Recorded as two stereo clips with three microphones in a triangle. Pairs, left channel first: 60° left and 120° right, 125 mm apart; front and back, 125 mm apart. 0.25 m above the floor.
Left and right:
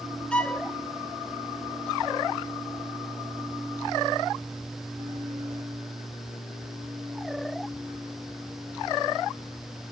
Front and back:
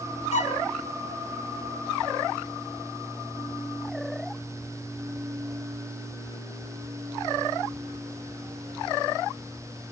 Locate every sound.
0.3 s a violin: 25° right, 0.7 m